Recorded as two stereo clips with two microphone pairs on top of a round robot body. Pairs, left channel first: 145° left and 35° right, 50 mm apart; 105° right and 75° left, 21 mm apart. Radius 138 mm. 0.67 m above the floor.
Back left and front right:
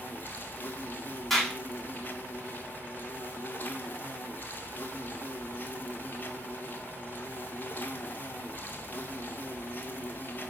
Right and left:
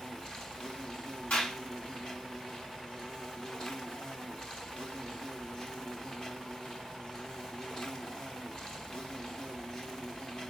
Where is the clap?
130° right, 6 m.